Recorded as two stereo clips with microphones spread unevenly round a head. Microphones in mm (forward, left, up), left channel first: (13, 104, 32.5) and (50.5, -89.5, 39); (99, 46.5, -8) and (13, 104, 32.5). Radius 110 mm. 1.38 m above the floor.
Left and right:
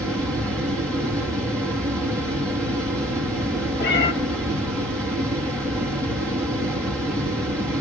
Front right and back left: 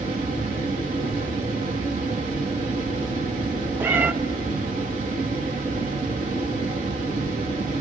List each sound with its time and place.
0.0 s a fan: 175° right, 3.5 m
3.8 s a cat meowing: 120° left, 0.8 m